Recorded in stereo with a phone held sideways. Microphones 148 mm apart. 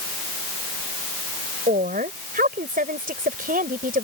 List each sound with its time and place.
1.7 s a woman speaking: 75° right (ahead or behind)